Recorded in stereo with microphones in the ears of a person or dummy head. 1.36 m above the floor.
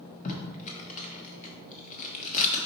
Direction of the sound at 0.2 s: 40° left (ahead or behind).